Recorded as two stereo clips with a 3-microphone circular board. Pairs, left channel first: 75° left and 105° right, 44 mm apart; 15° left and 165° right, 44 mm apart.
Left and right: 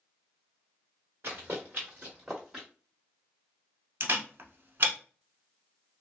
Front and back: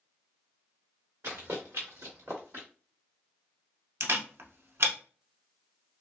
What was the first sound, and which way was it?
Running footsteps, 150° right.